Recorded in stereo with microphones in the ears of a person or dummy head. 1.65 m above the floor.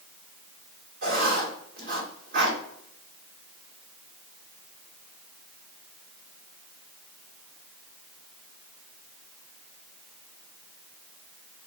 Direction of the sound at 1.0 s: 45° right (ahead or behind).